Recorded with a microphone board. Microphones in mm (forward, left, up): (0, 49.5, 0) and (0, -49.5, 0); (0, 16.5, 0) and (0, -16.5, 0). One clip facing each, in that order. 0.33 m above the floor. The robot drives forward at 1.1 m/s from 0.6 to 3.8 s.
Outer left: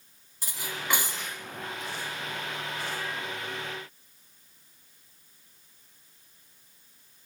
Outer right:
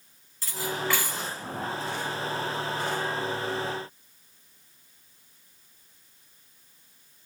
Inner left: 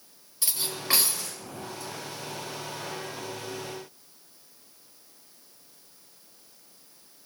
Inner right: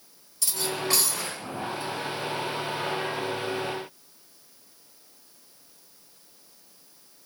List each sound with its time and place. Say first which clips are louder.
0.4 s cutlery clinking: outer right 6 dB, inner right 3 dB; 15° left (ahead or behind), 5 m; by 1.3 s 20° left (ahead or behind), 4 m